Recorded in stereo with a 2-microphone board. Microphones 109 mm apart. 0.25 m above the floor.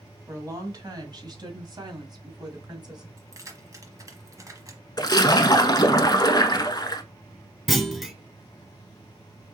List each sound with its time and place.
0.3 s a woman speaking: 30° right (ahead or behind), 1.7 m; by 3.1 s 40° right (ahead or behind), 1.8 m
3.2 s keys jangling: 30° right (ahead or behind), 1.1 m
5.0 s a splash: 40° left (ahead or behind), 0.7 m
7.7 s a clunk: centre (ahead or behind), 0.6 m